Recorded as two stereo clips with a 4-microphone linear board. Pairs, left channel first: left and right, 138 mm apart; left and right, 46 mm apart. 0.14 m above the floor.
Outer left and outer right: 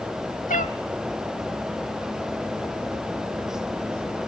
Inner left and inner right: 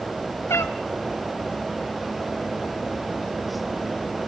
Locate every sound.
0.5 s a cat meowing: 75° left (ahead or behind), 1.0 m